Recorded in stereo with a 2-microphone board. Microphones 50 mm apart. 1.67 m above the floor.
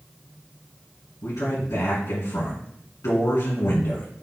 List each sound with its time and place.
1.2 s a man speaking: 85° left, 3 m